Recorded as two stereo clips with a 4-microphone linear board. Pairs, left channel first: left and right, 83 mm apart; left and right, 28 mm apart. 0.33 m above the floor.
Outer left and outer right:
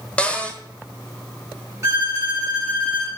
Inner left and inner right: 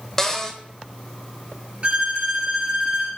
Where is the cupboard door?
15° left (ahead or behind), 1.3 m.